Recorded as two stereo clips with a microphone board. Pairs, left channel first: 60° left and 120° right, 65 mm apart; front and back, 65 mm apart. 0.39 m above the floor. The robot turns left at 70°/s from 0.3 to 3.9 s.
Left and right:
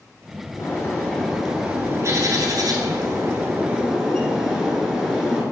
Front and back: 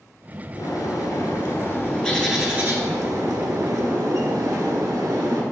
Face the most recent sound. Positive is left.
turn(degrees=155)